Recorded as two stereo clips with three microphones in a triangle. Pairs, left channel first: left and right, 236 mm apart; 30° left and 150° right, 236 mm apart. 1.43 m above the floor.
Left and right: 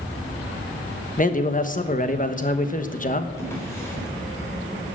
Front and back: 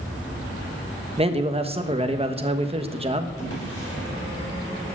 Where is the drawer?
10° left, 4 m.